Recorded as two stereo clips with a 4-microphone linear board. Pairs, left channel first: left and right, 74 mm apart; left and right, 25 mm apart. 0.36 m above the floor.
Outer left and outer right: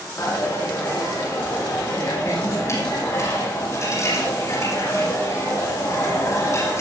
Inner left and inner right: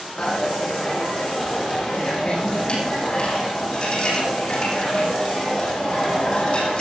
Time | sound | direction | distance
0.2 | a dropped coin | 40° left (ahead or behind) | 8 m